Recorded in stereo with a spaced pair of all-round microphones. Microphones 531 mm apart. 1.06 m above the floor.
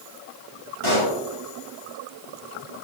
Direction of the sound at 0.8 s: 70° right (ahead or behind).